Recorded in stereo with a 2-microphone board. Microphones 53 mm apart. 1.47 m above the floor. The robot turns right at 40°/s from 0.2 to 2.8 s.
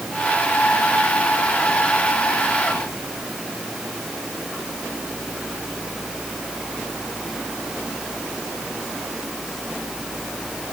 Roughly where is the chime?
No chime in this recording.